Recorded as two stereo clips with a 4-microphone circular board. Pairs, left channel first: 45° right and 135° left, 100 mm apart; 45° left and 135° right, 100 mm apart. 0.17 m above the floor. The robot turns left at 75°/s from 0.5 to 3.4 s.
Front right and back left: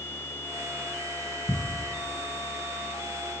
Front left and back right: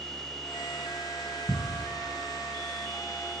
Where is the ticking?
100° left, 2.0 m.